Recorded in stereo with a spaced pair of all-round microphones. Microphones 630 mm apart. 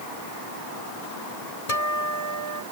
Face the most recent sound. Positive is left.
turn(degrees=75)  # may be behind; listen again after turning